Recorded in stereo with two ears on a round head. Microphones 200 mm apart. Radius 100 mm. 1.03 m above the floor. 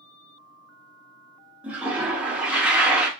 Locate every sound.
1.6 s a toilet flushing: 5° right (ahead or behind), 0.7 m